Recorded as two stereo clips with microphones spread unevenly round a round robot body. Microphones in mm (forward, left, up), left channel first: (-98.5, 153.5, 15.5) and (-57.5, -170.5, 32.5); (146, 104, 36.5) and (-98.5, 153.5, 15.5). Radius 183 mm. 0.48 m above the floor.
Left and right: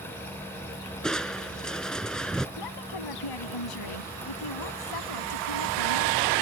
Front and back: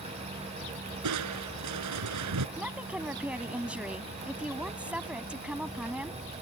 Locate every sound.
1.0 s crushing: 175° right
2.6 s a woman speaking: 85° left